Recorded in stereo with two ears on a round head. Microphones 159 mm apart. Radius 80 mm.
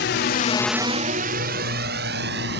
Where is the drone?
70° left (ahead or behind); by 2.6 s 65° right (ahead or behind).